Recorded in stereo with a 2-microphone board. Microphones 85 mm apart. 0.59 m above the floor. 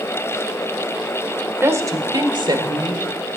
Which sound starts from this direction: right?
A woman speaking, at 1.6 s.